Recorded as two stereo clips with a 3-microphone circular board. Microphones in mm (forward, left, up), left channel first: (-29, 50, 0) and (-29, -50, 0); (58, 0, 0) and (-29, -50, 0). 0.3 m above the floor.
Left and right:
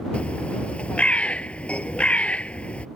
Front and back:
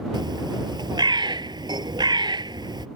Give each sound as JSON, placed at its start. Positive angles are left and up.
{"t": 0.1, "sound": "a bird", "azimuth_deg": 170}